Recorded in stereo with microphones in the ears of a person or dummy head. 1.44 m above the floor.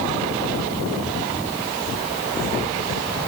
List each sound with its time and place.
Only background noise.